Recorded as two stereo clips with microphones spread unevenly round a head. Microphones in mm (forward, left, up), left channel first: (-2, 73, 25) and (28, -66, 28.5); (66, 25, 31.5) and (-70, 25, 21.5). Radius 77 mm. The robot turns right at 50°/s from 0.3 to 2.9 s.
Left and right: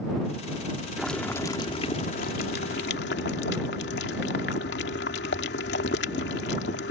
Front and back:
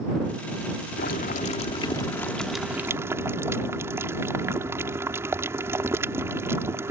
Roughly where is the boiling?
Ahead.